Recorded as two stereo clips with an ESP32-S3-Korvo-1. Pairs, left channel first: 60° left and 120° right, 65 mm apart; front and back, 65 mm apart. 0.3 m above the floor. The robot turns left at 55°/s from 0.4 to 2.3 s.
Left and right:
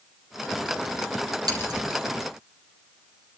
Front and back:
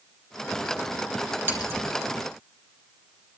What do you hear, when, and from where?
1.5 s scissors: 120° right, 5 m; by 1.8 s 140° right, 5 m